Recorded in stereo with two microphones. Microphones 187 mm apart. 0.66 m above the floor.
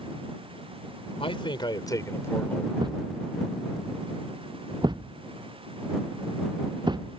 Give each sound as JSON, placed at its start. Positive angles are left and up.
{"t": 1.2, "sound": "a man speaking", "side_deg": 30}
{"t": 2.8, "sound": "a thud", "side_deg": -25}